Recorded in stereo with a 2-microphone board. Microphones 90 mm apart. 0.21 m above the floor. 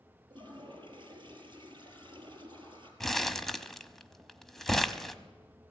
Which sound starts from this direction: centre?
Crumpling, at 3.0 s.